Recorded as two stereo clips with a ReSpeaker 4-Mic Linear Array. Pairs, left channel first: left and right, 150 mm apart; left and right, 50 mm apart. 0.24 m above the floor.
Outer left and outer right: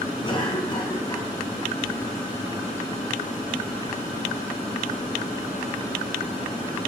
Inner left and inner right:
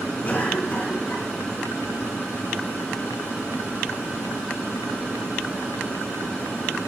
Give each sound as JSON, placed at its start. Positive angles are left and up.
{"t": 0.2, "sound": "a cough", "side_deg": 35, "distance_m": 2.0}